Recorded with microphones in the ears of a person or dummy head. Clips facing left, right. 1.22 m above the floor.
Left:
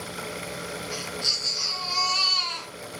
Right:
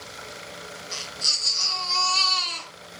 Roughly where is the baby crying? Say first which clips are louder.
Left 6 dB; right.